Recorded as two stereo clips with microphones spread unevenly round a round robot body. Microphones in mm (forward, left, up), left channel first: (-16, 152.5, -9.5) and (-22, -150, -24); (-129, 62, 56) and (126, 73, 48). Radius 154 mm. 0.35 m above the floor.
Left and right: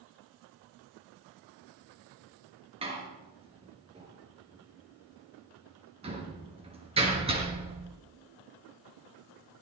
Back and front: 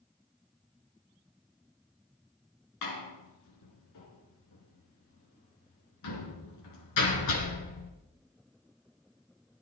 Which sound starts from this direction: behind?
A door slam, at 2.8 s.